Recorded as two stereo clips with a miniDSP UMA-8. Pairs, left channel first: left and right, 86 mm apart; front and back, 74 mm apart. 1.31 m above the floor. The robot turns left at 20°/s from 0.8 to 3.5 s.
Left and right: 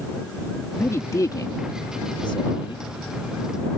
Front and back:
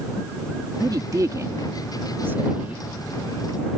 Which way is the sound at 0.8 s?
150° left.